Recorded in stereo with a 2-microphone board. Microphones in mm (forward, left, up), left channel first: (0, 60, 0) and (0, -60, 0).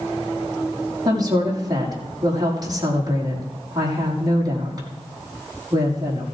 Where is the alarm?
No alarm in this recording.